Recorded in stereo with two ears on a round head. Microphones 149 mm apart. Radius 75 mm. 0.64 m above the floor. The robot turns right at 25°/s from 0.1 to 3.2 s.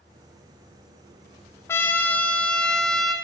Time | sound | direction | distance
1.7 | a trumpet | 15° left (ahead or behind) | 0.7 m